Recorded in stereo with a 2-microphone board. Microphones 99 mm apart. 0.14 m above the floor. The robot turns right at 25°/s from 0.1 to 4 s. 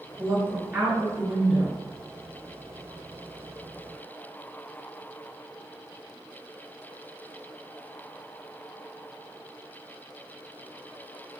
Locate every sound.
0.2 s a woman speaking: 35° right, 1.9 m; by 1.8 s 5° left, 1.9 m